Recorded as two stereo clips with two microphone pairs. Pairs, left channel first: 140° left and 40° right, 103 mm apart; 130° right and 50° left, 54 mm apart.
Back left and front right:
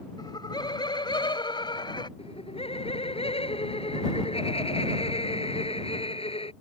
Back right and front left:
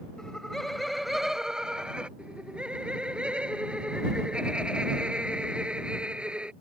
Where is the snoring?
I don't hear snoring.